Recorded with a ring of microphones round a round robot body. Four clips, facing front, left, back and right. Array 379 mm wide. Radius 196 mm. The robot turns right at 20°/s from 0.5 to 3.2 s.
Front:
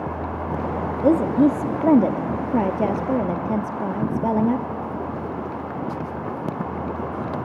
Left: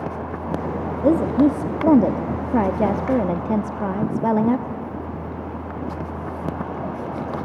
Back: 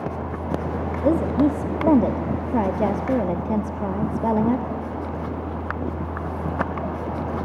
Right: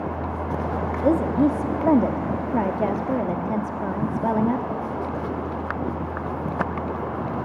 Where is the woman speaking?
40° left, 1.0 m; by 4.7 s 85° left, 1.0 m.